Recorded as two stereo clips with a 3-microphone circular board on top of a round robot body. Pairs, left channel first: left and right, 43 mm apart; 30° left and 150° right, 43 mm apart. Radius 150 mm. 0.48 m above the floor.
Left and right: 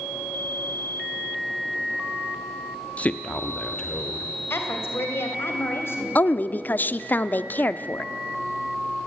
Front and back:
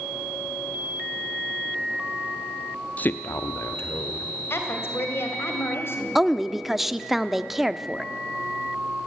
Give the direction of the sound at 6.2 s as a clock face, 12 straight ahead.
8 o'clock.